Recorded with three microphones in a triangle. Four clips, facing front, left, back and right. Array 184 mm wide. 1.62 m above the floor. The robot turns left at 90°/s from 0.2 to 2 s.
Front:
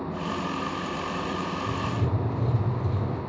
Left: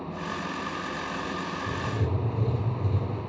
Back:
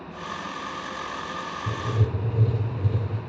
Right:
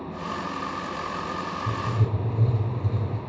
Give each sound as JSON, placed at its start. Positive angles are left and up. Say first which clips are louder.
{"t": 1.7, "sound": "writing", "louder": "right 2 dB, even", "azimuth_deg": -150, "distance_m": 0.8}